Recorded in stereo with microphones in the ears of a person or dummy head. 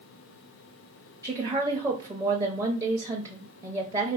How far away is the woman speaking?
About 0.6 m.